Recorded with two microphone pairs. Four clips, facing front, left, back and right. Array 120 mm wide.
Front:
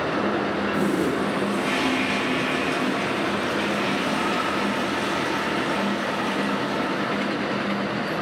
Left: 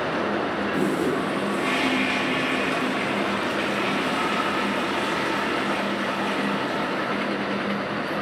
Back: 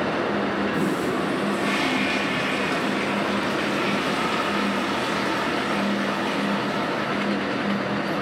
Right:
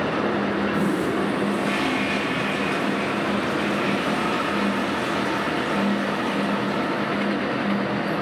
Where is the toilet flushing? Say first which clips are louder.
Right 1 dB, front 1 dB; 90° left, 2 m.